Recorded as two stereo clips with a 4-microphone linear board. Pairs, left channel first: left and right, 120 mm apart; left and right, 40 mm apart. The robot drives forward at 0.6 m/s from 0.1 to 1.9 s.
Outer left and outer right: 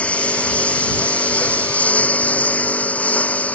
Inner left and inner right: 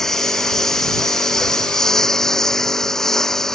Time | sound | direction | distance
0.0 | a lawn mower | 10° left (ahead or behind) | ?